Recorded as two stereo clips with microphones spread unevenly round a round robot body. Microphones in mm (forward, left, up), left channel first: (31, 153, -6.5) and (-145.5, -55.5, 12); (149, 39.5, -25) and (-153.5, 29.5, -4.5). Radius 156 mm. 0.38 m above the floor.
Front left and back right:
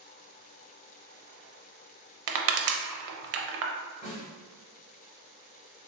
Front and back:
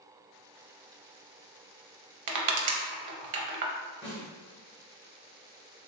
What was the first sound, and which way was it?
Crushing, 145° right.